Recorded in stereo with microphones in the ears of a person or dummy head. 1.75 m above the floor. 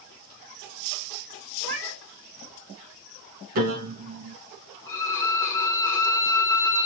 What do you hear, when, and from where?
1.6 s a cat meowing: 65° right (ahead or behind), 3.5 m
3.5 s a piano: 50° right (ahead or behind), 2.5 m
4.9 s a violin: 20° left (ahead or behind), 1.1 m